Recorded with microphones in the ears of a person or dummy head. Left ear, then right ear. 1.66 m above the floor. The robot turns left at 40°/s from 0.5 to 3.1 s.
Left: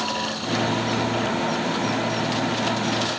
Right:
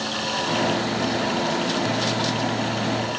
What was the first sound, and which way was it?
Only background noise.